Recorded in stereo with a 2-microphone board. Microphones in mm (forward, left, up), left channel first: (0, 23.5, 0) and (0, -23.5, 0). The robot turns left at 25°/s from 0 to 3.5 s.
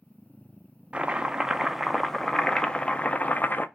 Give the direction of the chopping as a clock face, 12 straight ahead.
5 o'clock.